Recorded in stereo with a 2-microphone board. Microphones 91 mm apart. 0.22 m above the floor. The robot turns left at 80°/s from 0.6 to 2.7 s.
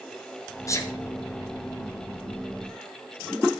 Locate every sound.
0.7 s a sneeze: 35° left (ahead or behind), 1.3 m; by 0.9 s 25° left (ahead or behind), 1.3 m